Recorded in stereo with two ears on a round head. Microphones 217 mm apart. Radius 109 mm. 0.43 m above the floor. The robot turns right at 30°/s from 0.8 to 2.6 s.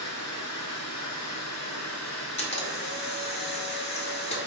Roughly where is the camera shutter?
Left.